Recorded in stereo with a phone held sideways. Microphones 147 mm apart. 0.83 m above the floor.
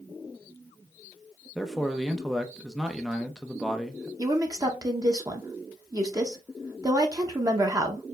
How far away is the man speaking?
About 0.6 m.